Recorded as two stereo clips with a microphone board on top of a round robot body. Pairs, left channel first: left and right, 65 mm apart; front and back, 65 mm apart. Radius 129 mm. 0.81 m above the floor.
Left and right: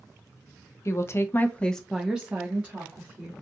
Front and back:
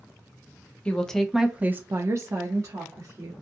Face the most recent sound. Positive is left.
turn(degrees=-150)